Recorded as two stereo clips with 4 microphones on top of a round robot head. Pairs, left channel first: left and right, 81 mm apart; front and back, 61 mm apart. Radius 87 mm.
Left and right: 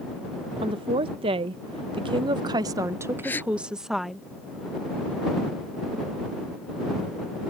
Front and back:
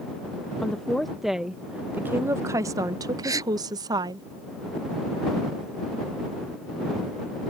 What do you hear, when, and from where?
0.6 s a woman speaking: 80° right; by 4.2 s straight behind
3.2 s a gasp: 160° left